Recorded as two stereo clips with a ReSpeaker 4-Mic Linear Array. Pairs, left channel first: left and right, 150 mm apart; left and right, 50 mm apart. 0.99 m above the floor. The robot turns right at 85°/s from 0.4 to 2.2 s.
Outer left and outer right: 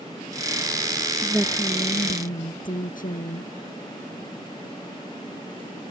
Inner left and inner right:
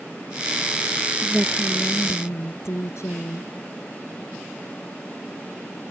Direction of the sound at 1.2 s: 20° right.